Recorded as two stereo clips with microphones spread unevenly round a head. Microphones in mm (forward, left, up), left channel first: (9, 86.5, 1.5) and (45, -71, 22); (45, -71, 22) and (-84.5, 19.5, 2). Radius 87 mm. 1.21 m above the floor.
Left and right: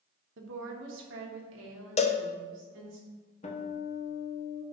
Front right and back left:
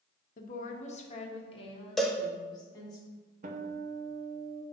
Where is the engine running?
No engine running in this recording.